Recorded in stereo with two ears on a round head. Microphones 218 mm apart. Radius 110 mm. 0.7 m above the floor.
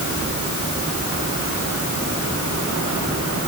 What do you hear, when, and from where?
Only background noise.